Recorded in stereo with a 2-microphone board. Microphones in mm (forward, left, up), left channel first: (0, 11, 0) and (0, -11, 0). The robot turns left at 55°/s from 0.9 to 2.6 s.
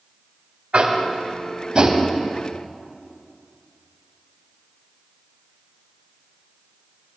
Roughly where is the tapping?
Right.